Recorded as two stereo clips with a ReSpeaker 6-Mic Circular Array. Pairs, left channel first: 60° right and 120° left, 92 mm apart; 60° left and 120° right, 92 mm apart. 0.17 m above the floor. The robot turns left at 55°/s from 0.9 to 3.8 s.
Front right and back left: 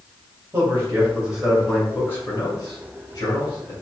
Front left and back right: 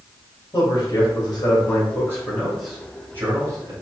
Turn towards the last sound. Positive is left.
turn(degrees=-95)